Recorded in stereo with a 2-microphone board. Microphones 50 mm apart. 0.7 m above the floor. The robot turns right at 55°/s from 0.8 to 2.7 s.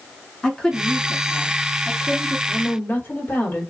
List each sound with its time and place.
0.4 s a woman speaking: 165° left, 1.5 m; by 2.4 s 110° right, 1.5 m
2.5 s a woman speaking: 40° left (ahead or behind), 1.4 m; by 3.7 s 45° left (ahead or behind), 1.4 m